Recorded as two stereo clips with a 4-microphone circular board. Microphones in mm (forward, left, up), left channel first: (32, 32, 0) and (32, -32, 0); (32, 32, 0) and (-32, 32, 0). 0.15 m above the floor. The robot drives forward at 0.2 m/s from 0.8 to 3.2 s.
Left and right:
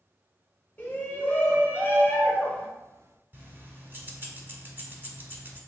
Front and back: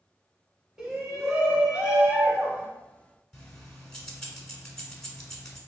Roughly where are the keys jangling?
Right.